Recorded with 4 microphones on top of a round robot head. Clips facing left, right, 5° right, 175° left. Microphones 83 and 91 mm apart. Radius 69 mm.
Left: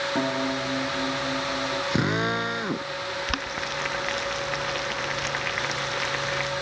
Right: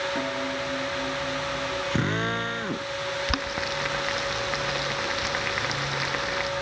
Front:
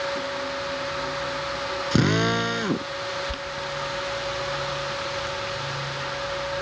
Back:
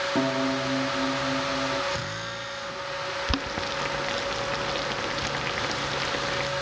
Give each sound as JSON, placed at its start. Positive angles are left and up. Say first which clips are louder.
{"t": 0.1, "sound": "a piano", "louder": "left 3 dB, back 4 dB", "azimuth_deg": 155}
{"t": 1.9, "sound": "a drill", "louder": "left 2 dB, front 11 dB", "azimuth_deg": 10}
{"t": 3.3, "sound": "boiling", "louder": "right 1 dB, back 1 dB", "azimuth_deg": -170}